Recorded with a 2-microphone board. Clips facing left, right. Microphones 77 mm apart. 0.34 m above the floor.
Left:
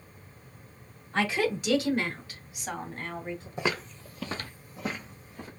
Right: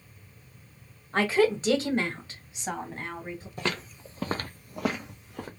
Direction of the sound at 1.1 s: 40° right (ahead or behind).